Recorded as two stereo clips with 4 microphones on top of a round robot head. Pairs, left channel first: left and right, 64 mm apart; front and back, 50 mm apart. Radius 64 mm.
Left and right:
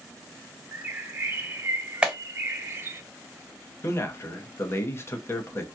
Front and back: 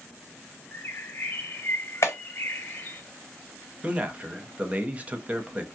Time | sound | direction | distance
0.7 | a bird | 40° right | 0.6 m
2.0 | a clap | 15° right | 1.2 m
3.8 | a man speaking | 130° left | 0.8 m